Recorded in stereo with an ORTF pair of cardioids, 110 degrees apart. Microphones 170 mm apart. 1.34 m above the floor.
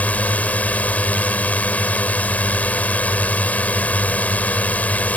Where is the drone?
10° left.